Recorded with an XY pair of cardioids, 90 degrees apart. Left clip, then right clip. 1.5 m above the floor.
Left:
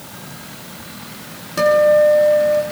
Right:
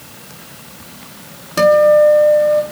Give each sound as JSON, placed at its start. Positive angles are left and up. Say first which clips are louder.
{"t": 1.6, "sound": "a guitar", "louder": "right 3 dB", "azimuth_deg": -40, "distance_m": 4.0}